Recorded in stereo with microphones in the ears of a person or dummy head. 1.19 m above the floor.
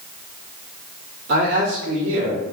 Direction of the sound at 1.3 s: 60° right (ahead or behind).